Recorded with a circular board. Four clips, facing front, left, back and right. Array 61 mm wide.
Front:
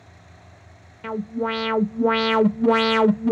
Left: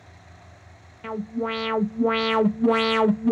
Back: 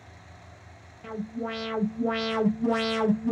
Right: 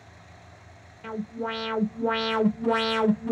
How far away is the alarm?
About 0.6 m.